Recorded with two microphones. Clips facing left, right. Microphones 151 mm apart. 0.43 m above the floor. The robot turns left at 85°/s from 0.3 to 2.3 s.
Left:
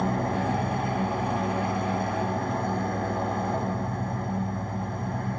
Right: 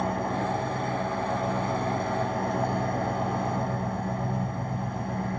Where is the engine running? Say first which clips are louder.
Left 2 dB; 95° left, 4 m; by 5.4 s 75° right, 4 m.